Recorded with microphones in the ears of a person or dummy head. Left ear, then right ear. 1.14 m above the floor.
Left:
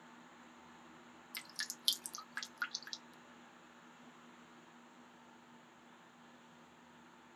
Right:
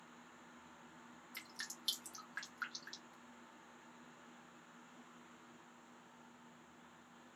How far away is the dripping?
About 0.6 m.